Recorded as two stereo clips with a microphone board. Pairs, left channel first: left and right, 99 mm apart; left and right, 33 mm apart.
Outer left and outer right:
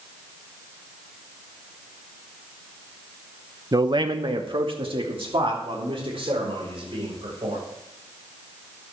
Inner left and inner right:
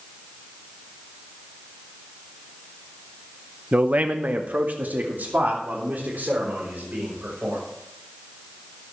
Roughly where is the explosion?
No explosion in this recording.